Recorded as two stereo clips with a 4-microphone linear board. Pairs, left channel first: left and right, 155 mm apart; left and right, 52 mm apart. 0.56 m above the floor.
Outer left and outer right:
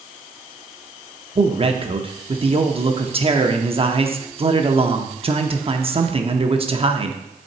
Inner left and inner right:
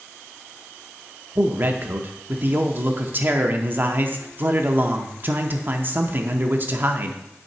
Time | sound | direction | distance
1.4 | a man speaking | 40° right (ahead or behind) | 0.7 m